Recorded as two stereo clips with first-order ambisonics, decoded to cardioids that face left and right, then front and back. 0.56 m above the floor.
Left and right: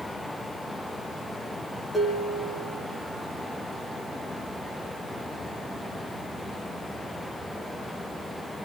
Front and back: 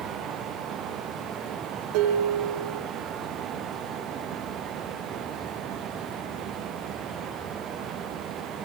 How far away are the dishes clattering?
About 4 m.